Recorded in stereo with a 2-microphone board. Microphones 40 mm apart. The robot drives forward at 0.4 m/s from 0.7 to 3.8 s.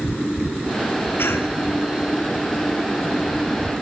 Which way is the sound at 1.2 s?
65° left (ahead or behind).